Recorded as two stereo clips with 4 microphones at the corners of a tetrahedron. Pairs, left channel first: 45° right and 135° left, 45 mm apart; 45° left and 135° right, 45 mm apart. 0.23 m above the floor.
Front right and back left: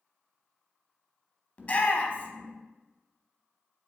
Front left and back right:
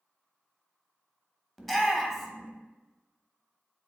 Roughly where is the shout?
Ahead right.